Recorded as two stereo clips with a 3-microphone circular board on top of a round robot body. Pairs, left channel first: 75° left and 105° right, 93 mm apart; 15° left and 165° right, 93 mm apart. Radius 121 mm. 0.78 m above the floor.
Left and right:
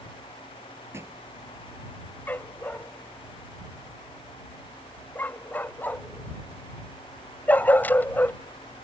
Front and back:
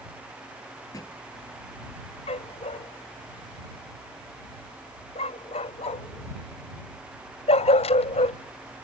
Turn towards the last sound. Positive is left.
turn(degrees=5)